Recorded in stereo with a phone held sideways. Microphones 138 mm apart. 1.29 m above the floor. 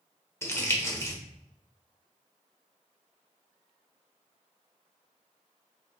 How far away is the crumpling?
About 1.0 m.